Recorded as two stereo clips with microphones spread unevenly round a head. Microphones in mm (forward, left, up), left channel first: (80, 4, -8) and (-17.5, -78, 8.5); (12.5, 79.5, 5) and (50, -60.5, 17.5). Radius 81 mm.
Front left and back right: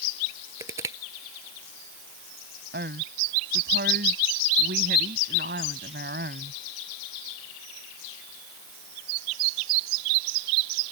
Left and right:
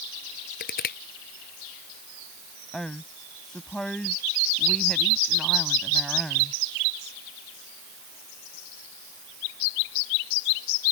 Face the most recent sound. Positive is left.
turn(degrees=-165)